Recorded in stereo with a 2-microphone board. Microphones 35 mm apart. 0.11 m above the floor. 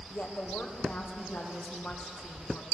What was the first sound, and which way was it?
A woman speaking, 60° left (ahead or behind).